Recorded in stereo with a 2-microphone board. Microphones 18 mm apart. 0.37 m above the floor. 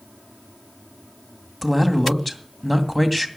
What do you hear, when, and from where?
1.6 s a man speaking: 5° left (ahead or behind), 2 m